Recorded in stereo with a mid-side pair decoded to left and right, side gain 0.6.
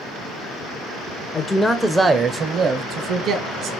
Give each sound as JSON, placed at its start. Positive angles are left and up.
{"t": 1.3, "sound": "a man speaking", "azimuth_deg": 30, "distance_m": 0.6}